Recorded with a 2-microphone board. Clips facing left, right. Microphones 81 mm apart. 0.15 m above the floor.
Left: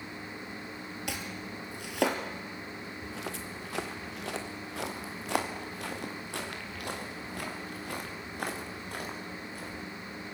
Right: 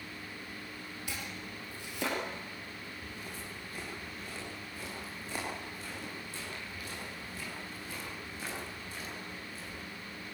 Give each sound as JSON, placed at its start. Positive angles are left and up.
{"t": 1.1, "sound": "chopping", "side_deg": 65, "distance_m": 3.5}
{"t": 3.0, "sound": "footsteps", "side_deg": 85, "distance_m": 2.5}